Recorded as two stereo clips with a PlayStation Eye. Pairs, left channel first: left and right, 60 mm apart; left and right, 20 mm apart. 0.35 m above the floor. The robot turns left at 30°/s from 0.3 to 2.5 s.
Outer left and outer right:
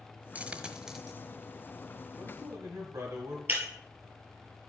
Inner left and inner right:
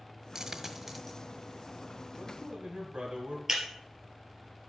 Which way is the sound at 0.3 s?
25° right (ahead or behind).